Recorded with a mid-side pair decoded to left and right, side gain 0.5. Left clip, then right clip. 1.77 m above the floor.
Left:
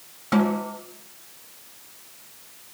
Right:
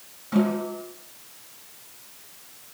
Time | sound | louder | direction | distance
0.3 | a snare drum | left 2 dB | 70° left | 3 m